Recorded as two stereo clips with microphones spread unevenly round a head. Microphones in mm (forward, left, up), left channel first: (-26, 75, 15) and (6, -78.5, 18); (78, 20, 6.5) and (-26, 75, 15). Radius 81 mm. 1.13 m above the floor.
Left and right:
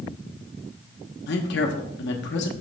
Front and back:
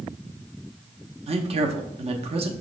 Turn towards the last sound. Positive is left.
turn(degrees=115)